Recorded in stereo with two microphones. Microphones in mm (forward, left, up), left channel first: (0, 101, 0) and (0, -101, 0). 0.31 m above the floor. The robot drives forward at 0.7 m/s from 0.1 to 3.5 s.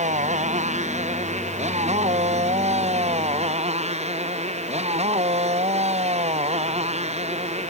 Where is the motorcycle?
35° right (ahead or behind).